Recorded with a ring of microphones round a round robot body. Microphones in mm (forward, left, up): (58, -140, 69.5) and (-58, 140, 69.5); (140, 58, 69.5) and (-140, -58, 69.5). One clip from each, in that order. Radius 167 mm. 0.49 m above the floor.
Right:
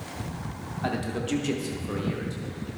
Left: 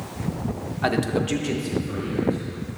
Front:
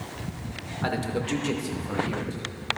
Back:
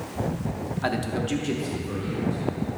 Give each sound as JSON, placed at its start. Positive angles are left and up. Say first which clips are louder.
{"t": 0.8, "sound": "a man speaking", "louder": "left 7 dB, back 1 dB", "azimuth_deg": 125, "distance_m": 1.0}